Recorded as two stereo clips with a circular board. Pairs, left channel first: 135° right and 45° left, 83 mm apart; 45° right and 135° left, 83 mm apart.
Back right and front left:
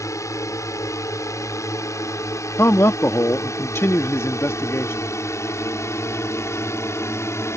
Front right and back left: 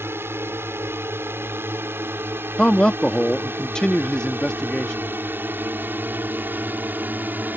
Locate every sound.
0.0 s a drone: 170° right
2.6 s a man speaking: 120° right